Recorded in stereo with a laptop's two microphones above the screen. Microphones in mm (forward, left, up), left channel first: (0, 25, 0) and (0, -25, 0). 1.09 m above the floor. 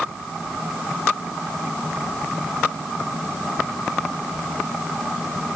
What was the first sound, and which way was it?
Only background noise.